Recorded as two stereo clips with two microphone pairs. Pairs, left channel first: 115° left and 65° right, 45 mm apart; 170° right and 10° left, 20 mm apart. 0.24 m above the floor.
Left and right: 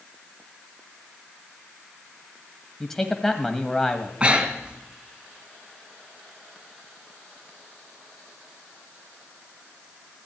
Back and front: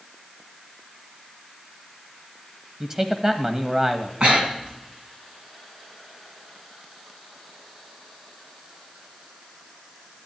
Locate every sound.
2.8 s a man speaking: 40° left, 1.0 m
4.2 s breathing: 5° right, 2 m